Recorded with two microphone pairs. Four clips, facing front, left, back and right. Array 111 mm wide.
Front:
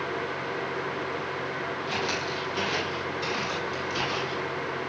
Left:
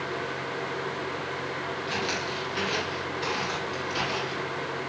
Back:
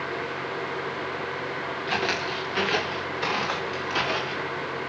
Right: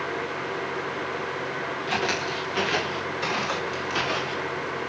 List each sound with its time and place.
1.9 s footsteps: 150° right, 6.5 m; by 4.5 s 155° right, 8 m